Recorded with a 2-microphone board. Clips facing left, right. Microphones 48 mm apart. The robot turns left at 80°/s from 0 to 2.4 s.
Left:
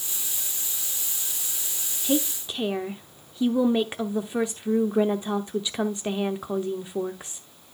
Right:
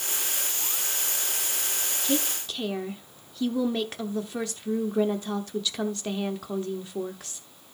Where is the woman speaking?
15° left (ahead or behind), 0.8 m; by 7.5 s 20° left (ahead or behind), 0.8 m.